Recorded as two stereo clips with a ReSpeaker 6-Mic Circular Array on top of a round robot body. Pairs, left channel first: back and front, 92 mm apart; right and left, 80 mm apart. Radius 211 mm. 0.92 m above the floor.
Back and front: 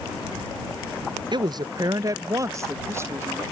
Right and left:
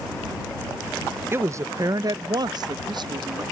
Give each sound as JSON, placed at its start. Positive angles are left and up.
{"t": 1.3, "sound": "a woman speaking", "azimuth_deg": 30}